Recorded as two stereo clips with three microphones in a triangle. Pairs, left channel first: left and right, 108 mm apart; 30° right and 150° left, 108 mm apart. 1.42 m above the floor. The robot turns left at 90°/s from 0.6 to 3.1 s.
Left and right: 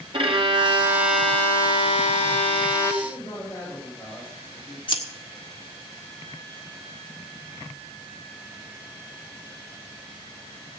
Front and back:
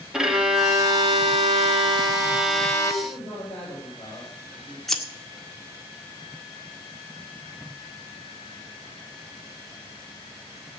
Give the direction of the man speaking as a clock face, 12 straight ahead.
11 o'clock.